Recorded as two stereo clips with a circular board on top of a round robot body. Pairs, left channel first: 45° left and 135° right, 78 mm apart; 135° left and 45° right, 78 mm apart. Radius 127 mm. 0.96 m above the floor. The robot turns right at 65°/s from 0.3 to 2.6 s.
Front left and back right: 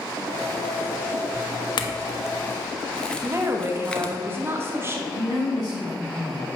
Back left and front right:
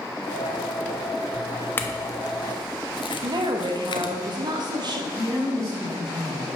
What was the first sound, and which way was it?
A clink, 70° left.